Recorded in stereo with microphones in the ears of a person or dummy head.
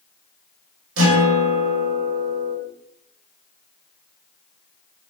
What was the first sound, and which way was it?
A guitar, 70° right (ahead or behind).